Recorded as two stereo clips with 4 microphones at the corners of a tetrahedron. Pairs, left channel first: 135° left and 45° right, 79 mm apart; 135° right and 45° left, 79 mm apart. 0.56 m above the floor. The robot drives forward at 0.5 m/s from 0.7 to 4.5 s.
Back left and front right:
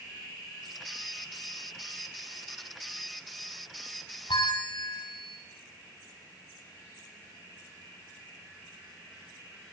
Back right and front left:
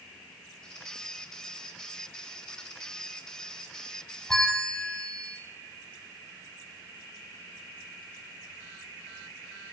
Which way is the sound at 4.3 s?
140° left.